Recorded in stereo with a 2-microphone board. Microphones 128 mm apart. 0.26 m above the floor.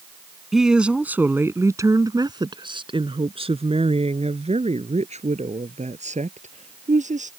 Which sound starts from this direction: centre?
A woman speaking, at 0.5 s.